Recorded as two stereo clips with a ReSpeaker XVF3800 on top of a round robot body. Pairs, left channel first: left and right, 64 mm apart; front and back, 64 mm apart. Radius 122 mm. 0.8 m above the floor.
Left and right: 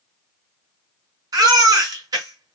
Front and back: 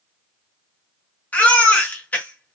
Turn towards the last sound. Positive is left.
turn(degrees=-65)